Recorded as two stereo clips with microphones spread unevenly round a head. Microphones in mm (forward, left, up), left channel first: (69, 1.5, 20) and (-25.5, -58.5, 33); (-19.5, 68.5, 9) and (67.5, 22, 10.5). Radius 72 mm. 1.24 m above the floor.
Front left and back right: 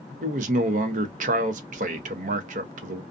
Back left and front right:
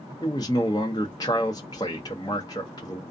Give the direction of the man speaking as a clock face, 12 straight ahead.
5 o'clock.